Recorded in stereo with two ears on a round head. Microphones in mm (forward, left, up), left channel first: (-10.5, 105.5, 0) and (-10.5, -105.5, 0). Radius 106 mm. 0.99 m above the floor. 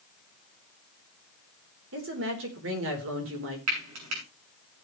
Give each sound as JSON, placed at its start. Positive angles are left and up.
{"t": 1.9, "sound": "a woman speaking", "side_deg": -60, "distance_m": 3.5}
{"t": 3.7, "sound": "frying", "side_deg": -80, "distance_m": 8.0}